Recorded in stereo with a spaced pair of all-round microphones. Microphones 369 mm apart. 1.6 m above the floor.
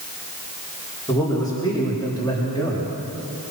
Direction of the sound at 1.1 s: 10° left (ahead or behind).